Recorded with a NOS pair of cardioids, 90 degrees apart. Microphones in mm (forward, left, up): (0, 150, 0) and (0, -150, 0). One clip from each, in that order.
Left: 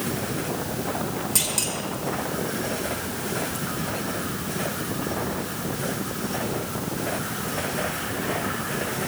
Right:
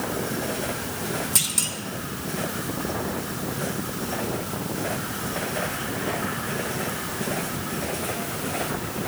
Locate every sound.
1.4 s a clunk: 20° right, 2.5 m